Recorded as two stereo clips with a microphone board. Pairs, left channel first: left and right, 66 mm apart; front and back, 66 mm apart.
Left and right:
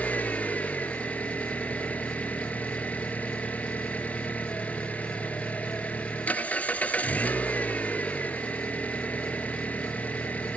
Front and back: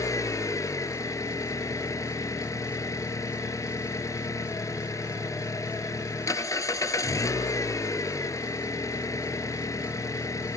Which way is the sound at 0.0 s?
25° left.